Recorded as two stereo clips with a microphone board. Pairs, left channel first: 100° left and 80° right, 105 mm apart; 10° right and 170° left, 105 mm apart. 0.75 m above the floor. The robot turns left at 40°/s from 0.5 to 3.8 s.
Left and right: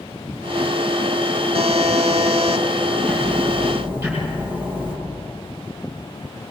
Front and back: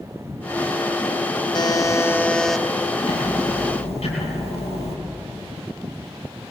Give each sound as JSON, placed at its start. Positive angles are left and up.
{"t": 1.5, "sound": "a buzzer", "azimuth_deg": -60, "distance_m": 1.0}
{"t": 3.0, "sound": "ticking", "azimuth_deg": 20, "distance_m": 8.5}